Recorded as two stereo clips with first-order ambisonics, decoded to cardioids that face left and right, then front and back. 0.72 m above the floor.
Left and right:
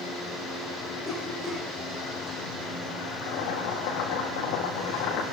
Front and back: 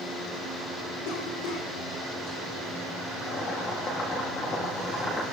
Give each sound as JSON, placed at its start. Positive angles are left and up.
{"t": 1.1, "sound": "a cough", "azimuth_deg": -5, "distance_m": 9.5}
{"t": 3.2, "sound": "boiling", "azimuth_deg": 70, "distance_m": 6.5}